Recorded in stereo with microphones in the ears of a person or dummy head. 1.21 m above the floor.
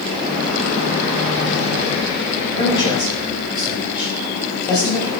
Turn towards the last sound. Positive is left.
turn(degrees=15)  # may be behind; listen again after turning